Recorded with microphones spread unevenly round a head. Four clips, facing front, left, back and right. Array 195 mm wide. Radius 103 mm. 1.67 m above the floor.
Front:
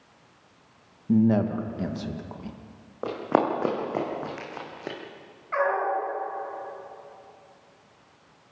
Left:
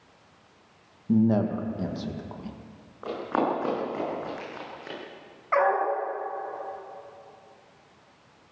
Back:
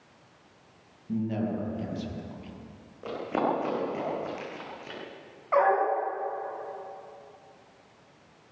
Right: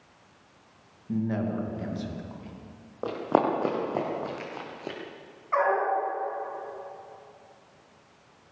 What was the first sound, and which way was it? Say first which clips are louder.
A man speaking: left 6 dB, front 8 dB; 35° left.